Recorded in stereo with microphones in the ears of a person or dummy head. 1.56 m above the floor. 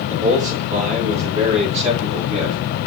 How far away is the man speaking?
About 4 m.